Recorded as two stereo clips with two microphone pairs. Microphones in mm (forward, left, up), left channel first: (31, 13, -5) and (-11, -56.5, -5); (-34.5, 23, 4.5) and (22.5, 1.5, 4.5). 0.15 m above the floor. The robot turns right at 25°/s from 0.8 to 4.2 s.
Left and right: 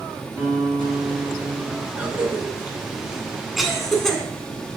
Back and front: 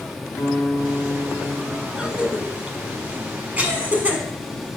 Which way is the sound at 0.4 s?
175° left.